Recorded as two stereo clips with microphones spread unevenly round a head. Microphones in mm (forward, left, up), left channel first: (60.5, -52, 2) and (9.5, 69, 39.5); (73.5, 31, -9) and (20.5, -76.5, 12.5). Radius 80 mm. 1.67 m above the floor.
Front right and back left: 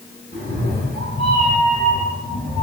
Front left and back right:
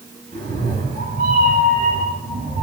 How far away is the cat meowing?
About 6.5 m.